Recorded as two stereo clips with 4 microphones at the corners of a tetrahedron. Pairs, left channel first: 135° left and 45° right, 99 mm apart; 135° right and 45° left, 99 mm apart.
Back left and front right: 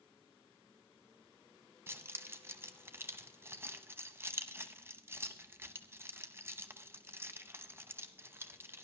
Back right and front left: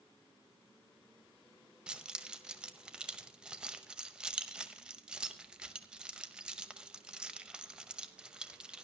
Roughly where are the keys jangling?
Ahead right.